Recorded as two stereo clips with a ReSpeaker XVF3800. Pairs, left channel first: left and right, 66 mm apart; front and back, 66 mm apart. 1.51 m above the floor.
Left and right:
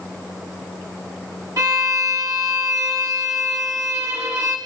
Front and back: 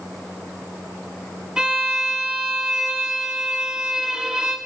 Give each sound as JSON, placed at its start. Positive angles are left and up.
{"t": 1.6, "sound": "a violin", "azimuth_deg": -105, "distance_m": 1.7}